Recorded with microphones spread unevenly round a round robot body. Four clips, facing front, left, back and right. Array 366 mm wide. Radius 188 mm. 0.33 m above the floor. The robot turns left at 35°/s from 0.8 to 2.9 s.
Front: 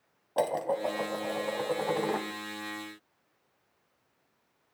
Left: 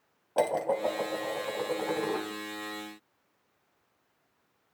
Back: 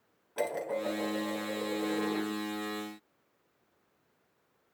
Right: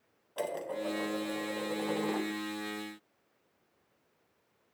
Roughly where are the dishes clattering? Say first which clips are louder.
Left 8 dB, front 4 dB; ahead left.